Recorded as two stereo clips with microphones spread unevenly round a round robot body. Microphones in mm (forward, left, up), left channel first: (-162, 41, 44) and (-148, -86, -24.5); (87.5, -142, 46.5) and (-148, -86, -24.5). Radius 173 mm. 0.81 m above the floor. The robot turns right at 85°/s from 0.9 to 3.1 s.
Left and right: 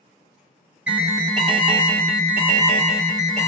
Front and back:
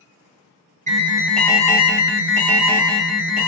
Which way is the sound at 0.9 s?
150° right.